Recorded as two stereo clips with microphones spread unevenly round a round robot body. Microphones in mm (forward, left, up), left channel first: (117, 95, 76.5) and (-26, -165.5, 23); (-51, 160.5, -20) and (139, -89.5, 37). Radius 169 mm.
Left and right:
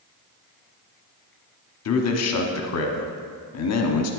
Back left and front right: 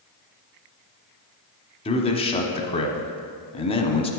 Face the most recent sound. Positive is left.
turn(degrees=75)